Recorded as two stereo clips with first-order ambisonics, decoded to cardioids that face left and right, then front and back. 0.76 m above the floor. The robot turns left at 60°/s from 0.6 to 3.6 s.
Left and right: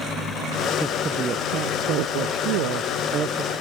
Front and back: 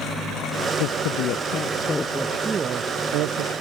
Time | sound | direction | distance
0.8 | a woman speaking | 5° right | ?